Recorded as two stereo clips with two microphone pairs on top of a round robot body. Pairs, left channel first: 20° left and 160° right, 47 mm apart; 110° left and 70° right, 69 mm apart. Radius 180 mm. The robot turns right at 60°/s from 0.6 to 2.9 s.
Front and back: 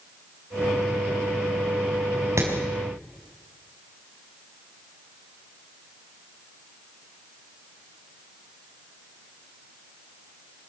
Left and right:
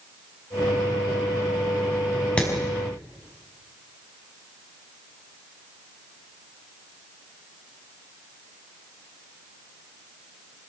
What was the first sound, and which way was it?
Hammering, 175° right.